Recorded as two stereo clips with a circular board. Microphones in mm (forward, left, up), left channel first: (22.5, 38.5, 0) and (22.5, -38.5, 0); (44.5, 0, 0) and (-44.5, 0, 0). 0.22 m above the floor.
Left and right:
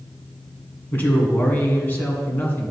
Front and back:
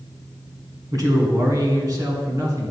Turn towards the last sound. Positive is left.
turn(degrees=145)